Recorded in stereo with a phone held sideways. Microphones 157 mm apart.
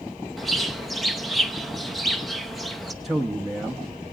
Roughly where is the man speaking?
Centre.